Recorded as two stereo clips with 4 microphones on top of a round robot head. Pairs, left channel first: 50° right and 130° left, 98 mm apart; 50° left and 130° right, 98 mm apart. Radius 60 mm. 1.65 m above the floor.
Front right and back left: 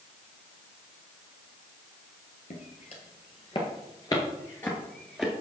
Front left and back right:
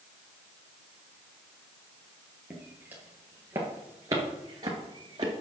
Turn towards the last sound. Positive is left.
turn(degrees=-140)